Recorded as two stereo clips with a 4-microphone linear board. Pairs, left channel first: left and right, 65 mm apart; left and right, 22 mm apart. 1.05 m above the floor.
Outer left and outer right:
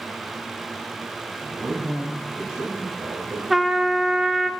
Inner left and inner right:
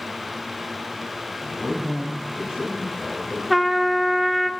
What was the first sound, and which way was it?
A man speaking, 55° right (ahead or behind).